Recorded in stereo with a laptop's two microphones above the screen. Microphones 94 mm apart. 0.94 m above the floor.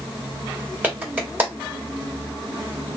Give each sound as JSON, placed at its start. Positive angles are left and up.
{"t": 0.8, "sound": "a clap", "side_deg": -20, "distance_m": 2.5}